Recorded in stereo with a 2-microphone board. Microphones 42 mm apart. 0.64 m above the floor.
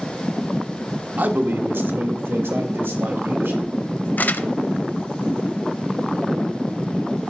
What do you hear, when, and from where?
1.2 s a man speaking: 50° right (ahead or behind), 1.1 m; by 4.1 s 75° right (ahead or behind), 3.5 m
4.2 s crumpling: 50° left (ahead or behind), 0.5 m